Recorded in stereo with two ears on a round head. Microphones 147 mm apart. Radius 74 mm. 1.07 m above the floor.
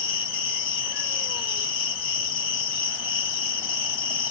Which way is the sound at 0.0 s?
30° left (ahead or behind).